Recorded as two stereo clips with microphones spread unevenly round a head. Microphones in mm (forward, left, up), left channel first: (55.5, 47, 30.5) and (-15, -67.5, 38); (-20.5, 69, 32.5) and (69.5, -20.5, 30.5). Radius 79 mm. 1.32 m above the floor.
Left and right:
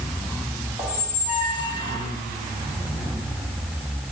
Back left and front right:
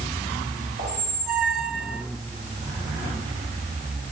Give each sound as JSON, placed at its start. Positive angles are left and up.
{"t": 0.8, "sound": "a squeak", "azimuth_deg": -45, "distance_m": 3.5}